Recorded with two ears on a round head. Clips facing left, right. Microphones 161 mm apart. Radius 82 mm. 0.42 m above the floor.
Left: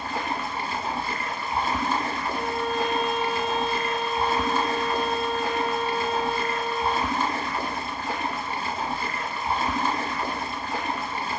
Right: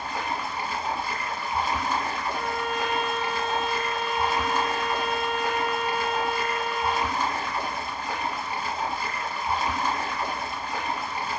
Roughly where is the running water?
Left.